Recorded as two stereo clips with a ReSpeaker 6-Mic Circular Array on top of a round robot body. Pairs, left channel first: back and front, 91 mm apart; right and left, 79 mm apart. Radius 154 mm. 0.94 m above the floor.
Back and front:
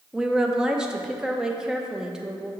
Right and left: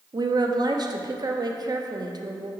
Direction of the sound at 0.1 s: 80° left.